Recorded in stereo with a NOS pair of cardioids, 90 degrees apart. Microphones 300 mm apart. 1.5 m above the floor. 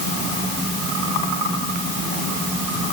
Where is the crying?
I don't hear crying.